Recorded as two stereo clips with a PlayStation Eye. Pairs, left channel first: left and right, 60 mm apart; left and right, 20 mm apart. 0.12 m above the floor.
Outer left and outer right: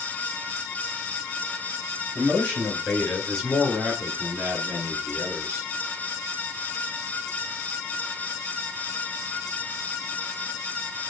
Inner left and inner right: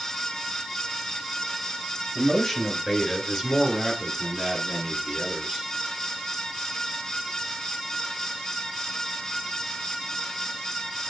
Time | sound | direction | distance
2.1 | a man speaking | 25° left (ahead or behind) | 2.5 m